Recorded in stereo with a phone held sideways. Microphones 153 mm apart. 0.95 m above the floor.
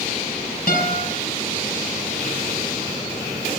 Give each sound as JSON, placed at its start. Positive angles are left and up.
{"t": 0.7, "sound": "a guitar", "side_deg": 75, "distance_m": 5.5}